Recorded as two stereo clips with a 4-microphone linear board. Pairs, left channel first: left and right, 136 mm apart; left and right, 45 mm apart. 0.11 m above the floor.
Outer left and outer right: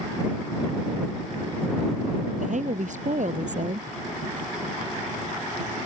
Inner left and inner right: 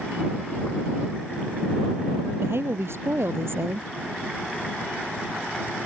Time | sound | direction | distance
2.4 | a woman speaking | 65° right (ahead or behind) | ?